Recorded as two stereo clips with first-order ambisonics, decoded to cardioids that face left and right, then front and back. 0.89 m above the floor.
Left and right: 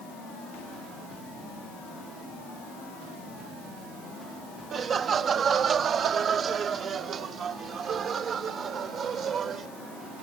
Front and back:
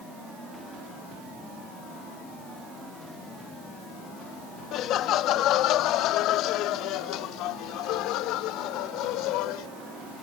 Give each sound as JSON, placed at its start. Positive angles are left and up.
{"t": 4.7, "sound": "laughter", "azimuth_deg": -35}